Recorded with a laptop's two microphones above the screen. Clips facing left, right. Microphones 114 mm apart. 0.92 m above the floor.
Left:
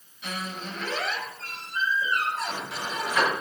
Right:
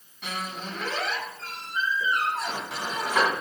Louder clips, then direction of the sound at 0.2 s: Right 1 dB; 75° right (ahead or behind).